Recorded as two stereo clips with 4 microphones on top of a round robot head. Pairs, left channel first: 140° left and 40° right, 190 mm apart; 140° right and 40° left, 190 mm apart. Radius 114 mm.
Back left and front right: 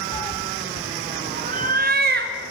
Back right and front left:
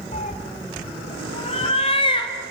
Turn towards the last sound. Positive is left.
turn(degrees=-75)